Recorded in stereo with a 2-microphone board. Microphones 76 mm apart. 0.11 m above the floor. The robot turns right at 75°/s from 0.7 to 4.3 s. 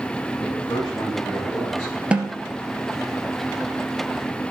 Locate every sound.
0.4 s a man speaking: 90° left, 8.5 m; by 2.0 s 170° right, 8.5 m
2.1 s a snare drum: 15° right (ahead or behind), 1.9 m; by 2.4 s 35° right (ahead or behind), 1.9 m